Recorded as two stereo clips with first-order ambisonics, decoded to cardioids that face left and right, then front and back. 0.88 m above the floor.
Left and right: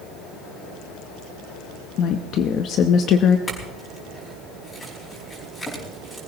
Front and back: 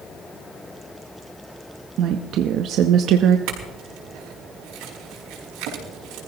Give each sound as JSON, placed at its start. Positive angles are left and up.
{"t": 2.0, "sound": "a woman speaking", "azimuth_deg": 135, "distance_m": 0.8}
{"t": 3.5, "sound": "a clink", "azimuth_deg": 165, "distance_m": 5.0}